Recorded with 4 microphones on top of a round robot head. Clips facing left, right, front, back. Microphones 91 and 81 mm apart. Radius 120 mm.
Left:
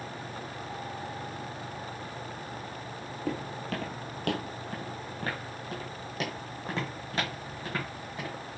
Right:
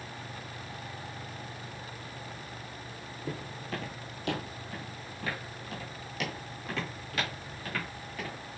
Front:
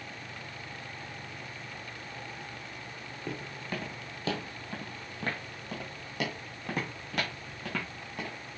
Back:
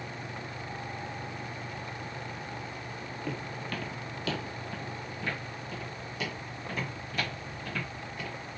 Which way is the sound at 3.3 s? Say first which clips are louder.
Left 4 dB, even; 85° left.